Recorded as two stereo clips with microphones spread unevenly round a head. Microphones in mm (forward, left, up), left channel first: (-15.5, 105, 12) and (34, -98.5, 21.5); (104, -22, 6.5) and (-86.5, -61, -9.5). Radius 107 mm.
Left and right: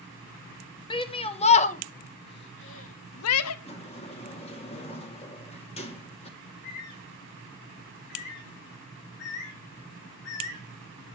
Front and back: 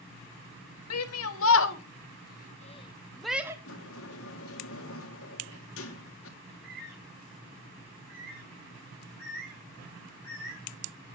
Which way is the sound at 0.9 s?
35° left.